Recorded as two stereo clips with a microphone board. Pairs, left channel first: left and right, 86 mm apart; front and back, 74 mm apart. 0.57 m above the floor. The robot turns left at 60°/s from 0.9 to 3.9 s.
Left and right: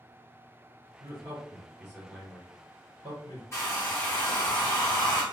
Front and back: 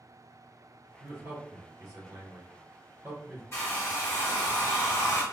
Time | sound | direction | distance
1.0 | a man speaking | 115° right | 1.8 m
3.5 | a hair dryer | 40° left | 1.4 m